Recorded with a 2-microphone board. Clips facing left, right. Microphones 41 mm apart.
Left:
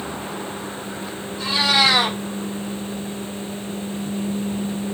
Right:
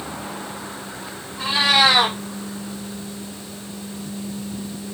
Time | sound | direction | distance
1.4 | a cat meowing | 35° right (ahead or behind) | 4 m